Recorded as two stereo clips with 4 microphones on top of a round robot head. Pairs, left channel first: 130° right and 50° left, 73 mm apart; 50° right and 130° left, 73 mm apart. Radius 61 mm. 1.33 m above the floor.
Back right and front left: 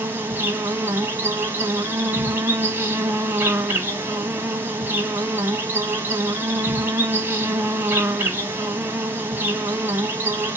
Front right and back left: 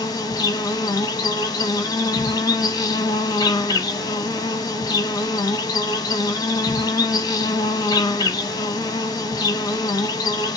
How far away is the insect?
About 1.8 m.